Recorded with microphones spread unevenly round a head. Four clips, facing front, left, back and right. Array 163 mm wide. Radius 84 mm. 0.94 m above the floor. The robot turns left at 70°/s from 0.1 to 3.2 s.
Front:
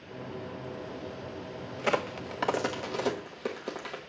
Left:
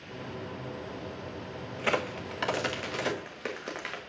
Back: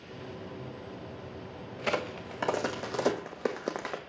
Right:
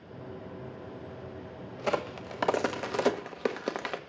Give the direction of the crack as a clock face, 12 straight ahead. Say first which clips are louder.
Even, front 3 dB; 12 o'clock.